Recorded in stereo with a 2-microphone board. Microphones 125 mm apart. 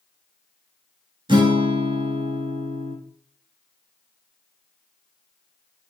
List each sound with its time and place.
1.3 s a guitar: 40° right (ahead or behind), 0.6 m